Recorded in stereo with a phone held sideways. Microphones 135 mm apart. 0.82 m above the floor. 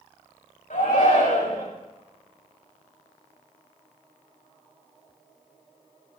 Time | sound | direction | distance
0.7 | a shout | 70° left (ahead or behind) | 5 m